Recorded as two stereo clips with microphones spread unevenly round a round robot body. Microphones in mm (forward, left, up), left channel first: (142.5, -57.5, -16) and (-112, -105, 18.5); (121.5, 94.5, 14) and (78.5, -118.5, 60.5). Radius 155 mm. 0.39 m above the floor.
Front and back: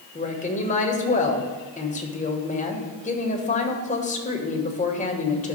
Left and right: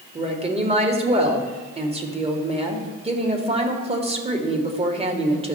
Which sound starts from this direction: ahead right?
A woman speaking, at 0.1 s.